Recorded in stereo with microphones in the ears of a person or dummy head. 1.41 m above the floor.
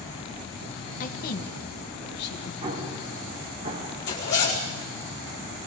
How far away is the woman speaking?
About 1.5 m.